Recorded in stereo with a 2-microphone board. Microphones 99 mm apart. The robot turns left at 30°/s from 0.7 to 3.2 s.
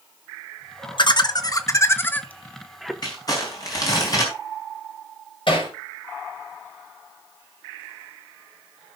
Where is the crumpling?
45° left (ahead or behind), 4.5 m; by 4.3 s 40° left (ahead or behind), 4.5 m.